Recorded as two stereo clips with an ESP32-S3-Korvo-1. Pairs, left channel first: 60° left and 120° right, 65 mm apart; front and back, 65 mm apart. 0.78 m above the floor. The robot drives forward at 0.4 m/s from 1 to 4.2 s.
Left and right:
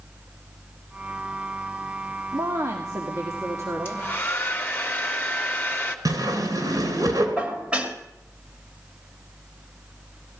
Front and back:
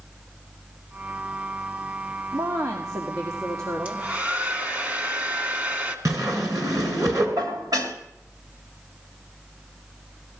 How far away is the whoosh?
About 3 m.